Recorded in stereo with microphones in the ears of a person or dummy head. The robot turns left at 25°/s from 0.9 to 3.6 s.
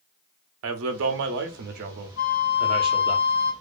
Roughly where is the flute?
Left.